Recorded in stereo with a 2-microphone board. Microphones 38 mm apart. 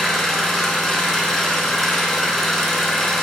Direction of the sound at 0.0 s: 5° left (ahead or behind).